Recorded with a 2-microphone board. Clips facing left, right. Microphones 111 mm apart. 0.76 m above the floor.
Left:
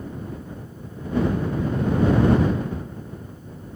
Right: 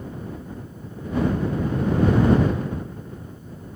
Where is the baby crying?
I don't hear a baby crying.